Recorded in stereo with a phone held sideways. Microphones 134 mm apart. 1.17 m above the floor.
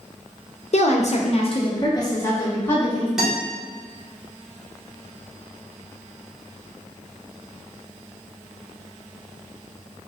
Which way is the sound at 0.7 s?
55° left (ahead or behind).